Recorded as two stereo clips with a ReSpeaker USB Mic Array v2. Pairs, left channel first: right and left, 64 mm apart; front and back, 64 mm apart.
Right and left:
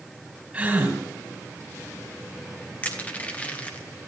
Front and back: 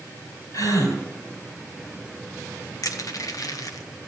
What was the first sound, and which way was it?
A gasp, 15° left.